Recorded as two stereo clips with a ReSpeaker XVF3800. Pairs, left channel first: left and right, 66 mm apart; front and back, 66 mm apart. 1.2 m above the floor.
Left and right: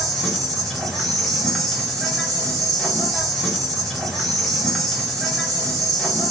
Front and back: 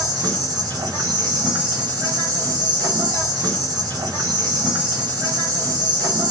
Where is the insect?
175° left, 1.5 m.